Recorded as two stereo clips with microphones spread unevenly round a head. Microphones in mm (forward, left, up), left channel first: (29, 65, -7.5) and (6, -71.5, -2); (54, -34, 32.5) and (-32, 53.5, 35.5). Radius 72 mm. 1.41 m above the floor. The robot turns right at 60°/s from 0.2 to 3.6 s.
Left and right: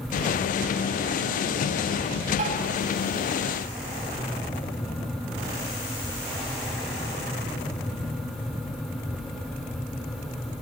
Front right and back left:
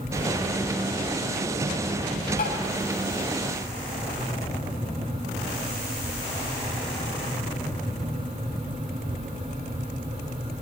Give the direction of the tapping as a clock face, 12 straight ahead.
2 o'clock.